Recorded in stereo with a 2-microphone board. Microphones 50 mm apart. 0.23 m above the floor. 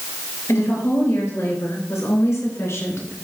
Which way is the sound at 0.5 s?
70° left (ahead or behind).